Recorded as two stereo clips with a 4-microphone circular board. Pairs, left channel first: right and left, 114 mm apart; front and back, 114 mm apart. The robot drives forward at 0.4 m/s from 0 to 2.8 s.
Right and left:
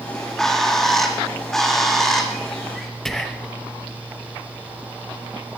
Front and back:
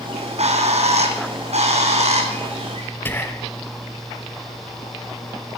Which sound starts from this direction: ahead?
Whispering, at 3.0 s.